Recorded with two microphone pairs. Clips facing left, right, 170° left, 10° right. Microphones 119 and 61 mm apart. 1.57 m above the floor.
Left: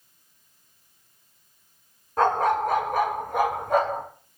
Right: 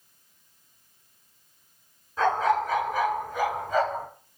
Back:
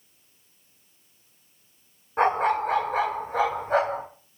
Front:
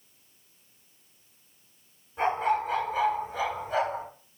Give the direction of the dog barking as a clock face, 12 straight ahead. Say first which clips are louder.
Left 2 dB, back 4 dB; 8 o'clock.